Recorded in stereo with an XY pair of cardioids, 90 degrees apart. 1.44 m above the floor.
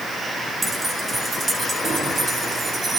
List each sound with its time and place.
0.6 s keys jangling: 30° right, 1.7 m; by 3.0 s 50° right, 3 m